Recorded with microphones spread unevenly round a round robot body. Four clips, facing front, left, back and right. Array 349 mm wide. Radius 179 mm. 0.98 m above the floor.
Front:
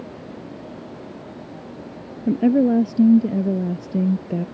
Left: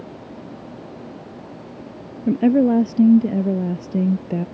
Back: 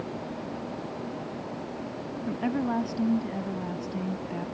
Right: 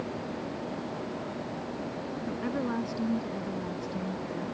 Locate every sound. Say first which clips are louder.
2.3 s a woman speaking: left 18 dB, front 12 dB; 50° left